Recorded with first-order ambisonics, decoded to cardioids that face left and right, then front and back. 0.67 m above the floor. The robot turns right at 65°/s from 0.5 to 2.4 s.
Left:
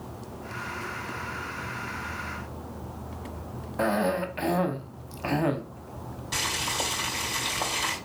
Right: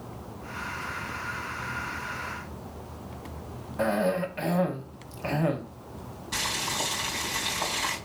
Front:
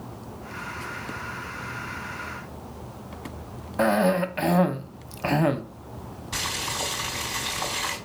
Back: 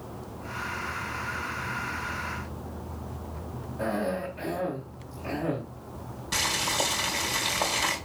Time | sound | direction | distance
3.8 | a cough | 10° left | 0.8 m
6.3 | boiling | 160° left | 3.5 m